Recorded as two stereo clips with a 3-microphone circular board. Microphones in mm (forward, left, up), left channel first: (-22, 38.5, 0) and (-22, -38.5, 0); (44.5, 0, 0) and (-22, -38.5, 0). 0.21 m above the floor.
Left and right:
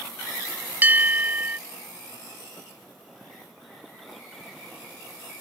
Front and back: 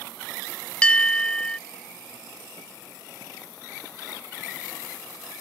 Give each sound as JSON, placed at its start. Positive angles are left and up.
{"t": 0.8, "sound": "a bell", "azimuth_deg": -40}